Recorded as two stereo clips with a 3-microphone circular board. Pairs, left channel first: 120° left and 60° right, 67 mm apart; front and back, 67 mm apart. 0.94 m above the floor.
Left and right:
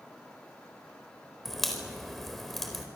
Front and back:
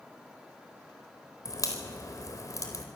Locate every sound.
1.4 s a crack: 35° left, 4 m